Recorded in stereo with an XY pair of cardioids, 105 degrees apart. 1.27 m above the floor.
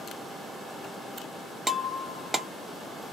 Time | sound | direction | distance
1.7 | breaking glass | 15° right | 1.1 m